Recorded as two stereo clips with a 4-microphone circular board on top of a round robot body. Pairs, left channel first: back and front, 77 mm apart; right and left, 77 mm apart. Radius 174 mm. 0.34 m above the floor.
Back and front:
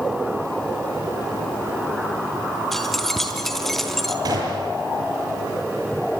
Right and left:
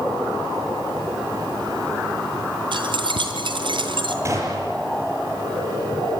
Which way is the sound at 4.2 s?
40° left.